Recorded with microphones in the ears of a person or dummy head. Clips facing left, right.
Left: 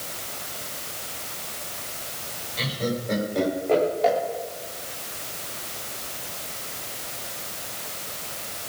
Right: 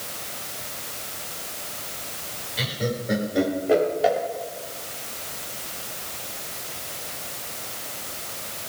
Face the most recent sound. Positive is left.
turn(degrees=-10)  # may be behind; listen again after turning